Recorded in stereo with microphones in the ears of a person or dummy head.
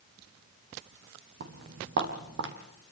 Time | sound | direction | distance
1.4 | footsteps | 60° right (ahead or behind) | 3.5 m